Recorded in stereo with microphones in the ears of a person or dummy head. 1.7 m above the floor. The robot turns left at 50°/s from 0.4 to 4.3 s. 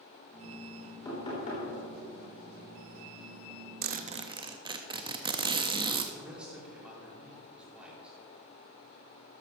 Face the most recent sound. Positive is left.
turn(degrees=-5)  # may be behind; listen again after turning